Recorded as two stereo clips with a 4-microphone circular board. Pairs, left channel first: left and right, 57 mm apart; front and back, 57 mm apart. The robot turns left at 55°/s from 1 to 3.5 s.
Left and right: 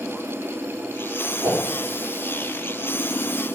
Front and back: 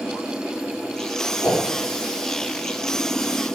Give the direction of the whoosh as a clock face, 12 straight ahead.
2 o'clock.